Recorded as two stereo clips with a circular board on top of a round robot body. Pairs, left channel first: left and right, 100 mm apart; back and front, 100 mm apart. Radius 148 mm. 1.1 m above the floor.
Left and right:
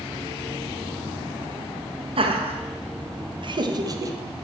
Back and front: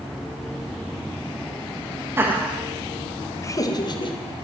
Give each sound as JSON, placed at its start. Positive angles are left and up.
{"t": 2.2, "sound": "laughter", "azimuth_deg": -65, "distance_m": 2.0}